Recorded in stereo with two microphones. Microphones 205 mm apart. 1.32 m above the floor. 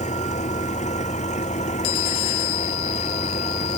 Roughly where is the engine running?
Left.